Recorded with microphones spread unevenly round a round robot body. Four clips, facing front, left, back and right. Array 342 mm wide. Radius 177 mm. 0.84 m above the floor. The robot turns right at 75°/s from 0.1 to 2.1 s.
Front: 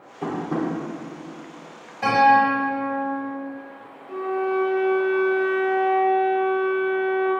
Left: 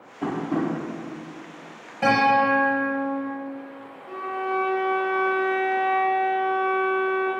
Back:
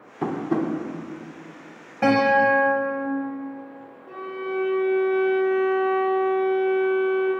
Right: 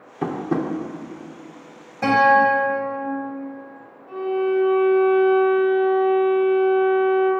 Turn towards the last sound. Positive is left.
turn(degrees=145)